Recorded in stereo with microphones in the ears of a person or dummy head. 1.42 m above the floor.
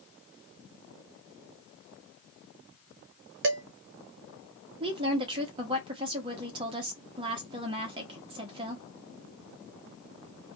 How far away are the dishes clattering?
About 0.7 m.